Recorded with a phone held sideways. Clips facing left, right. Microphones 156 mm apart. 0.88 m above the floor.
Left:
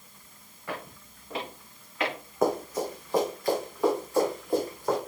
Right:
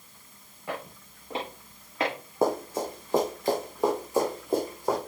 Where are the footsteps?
25° right (ahead or behind), 5 m; by 2.1 s 35° right (ahead or behind), 5 m.